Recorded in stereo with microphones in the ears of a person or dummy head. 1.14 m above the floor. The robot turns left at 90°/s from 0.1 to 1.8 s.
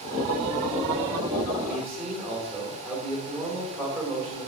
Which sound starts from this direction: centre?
A man speaking, at 1.7 s.